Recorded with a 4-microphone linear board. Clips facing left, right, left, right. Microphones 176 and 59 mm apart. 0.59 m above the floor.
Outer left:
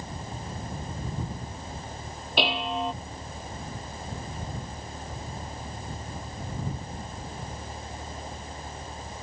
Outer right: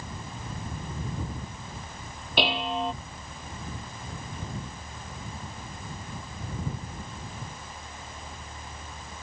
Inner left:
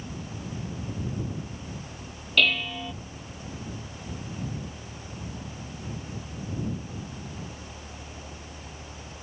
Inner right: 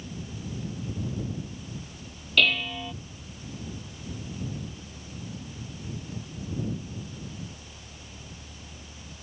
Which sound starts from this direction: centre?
Dishes clattering, at 2.4 s.